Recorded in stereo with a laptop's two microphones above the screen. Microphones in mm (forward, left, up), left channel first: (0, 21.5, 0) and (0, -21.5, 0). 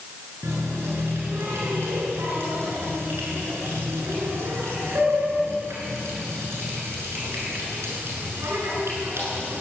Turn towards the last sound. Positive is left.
turn(degrees=-70)  # may be behind; listen again after turning